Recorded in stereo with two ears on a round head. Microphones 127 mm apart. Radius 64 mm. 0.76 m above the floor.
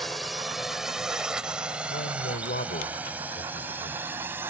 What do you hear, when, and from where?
0.0 s a drone: centre (ahead or behind); by 4.5 s 15° right (ahead or behind)
1.9 s a man speaking: 80° left